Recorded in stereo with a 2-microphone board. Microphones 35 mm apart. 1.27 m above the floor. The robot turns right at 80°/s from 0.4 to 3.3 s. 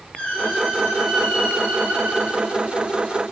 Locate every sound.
0.1 s a squeak: 135° left, 2 m; by 2.4 s 70° right, 2 m